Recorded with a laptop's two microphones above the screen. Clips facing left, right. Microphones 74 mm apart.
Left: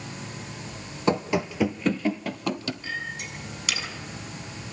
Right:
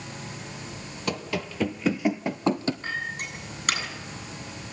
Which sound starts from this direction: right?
A clink, at 2.8 s.